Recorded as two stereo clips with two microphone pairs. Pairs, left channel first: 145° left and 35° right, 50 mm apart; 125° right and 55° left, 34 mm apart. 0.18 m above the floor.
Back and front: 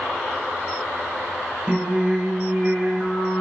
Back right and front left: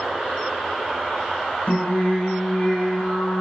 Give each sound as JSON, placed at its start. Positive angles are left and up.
{"t": 1.7, "sound": "singing", "azimuth_deg": -100, "distance_m": 0.8}